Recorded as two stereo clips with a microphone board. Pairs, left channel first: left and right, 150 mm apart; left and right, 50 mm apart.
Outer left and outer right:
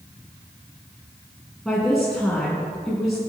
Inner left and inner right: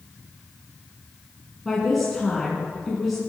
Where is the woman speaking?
Centre (ahead or behind), 3 m.